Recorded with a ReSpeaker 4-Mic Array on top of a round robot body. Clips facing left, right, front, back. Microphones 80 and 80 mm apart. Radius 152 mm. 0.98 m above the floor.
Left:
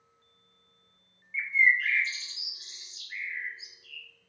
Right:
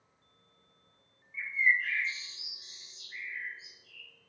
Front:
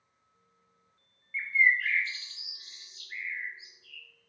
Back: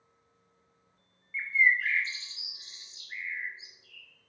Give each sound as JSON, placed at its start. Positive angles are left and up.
{"t": 1.3, "sound": "a bird", "azimuth_deg": 110, "distance_m": 0.7}